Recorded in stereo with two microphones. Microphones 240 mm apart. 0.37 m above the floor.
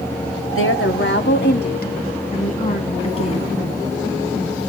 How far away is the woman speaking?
About 1.8 m.